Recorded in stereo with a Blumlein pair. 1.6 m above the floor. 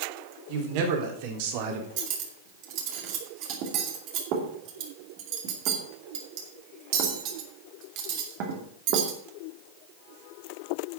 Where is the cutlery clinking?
40° right, 2.5 m.